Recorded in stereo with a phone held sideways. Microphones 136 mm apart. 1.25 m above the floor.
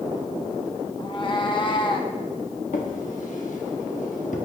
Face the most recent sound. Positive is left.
turn(degrees=65)  # may be behind; listen again after turning